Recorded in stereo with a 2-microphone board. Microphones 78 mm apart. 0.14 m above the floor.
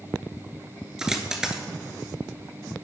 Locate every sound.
1.0 s a dropped coin: 10° right (ahead or behind), 0.7 m